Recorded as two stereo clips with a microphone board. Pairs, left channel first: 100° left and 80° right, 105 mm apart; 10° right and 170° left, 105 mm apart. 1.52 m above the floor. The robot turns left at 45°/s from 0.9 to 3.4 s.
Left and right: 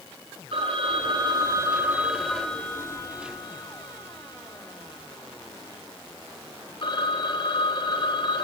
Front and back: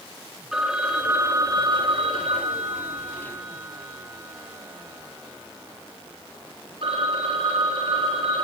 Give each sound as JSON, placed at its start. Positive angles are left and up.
{"t": 0.5, "sound": "a phone ringing", "azimuth_deg": -105, "distance_m": 3.0}